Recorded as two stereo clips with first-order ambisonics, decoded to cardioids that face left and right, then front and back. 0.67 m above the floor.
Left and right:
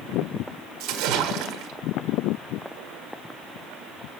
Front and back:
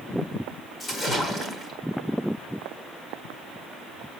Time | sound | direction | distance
0.8 | a splash | 75° right | 1.6 m